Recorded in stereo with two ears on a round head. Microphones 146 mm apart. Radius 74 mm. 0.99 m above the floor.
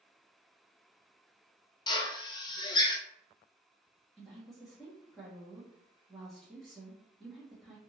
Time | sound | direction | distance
1.9 | a drill | 25° left (ahead or behind) | 0.6 m
4.2 | a woman speaking | centre (ahead or behind) | 1.2 m